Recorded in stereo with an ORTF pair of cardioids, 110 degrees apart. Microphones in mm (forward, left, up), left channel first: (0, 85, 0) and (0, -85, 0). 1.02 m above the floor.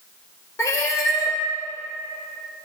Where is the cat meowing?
20° left, 1.5 m.